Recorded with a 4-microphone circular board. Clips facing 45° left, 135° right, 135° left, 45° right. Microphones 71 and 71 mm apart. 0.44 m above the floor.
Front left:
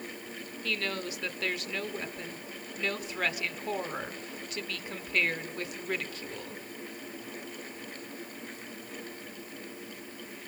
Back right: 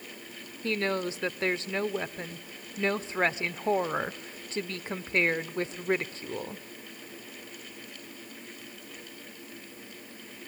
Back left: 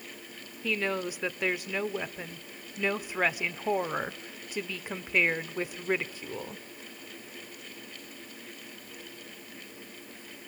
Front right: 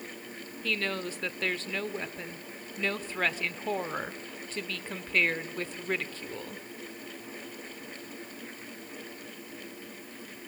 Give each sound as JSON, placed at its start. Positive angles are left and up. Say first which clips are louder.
{"t": 0.6, "sound": "a woman speaking", "louder": "back right 6 dB, back left 2 dB", "azimuth_deg": -155, "distance_m": 1.0}